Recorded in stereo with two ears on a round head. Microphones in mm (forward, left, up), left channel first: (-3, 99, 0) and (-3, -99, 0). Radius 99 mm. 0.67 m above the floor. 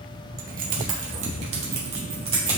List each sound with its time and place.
0.4 s keys jangling: 45° right (ahead or behind), 1.3 m; by 2.6 s 25° right (ahead or behind), 2.5 m